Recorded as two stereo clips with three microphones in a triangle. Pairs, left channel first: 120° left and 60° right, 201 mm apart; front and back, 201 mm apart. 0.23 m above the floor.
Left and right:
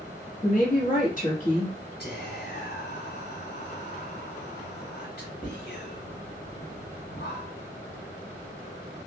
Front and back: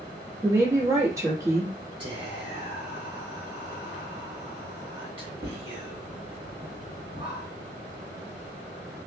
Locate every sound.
0.4 s a woman speaking: 115° left, 1.4 m
2.0 s whispering: 125° left, 1.7 m